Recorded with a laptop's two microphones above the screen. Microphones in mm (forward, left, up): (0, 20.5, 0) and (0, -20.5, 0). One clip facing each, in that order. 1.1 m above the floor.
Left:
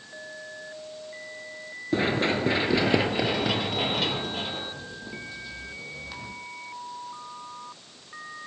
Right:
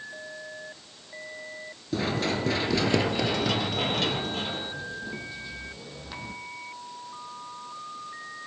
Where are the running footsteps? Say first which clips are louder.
Left 3 dB; 35° left (ahead or behind), 1.2 m; by 6.3 s 5° right (ahead or behind), 3 m.